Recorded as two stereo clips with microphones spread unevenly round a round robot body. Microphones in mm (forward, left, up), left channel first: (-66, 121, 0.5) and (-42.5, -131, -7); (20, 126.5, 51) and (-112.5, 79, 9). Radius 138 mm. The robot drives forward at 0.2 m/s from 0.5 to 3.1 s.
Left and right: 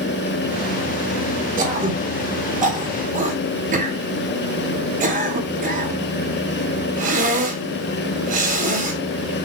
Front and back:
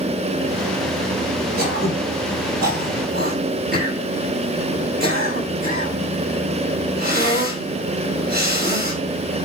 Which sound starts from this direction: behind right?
Throat clearing, at 1.6 s.